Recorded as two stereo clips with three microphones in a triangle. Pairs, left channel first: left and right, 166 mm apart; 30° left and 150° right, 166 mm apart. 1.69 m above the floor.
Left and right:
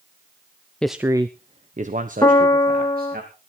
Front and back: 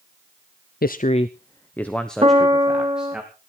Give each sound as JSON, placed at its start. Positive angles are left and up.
{"t": 0.8, "sound": "a man speaking", "azimuth_deg": 5, "distance_m": 0.6}
{"t": 2.2, "sound": "a piano", "azimuth_deg": 160, "distance_m": 1.9}